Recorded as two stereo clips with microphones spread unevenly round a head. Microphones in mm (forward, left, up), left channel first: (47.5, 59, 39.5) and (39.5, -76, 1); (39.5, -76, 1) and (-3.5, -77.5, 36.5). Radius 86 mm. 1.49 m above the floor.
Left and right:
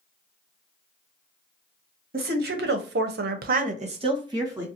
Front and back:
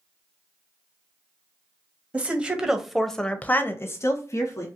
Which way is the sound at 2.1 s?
130° right.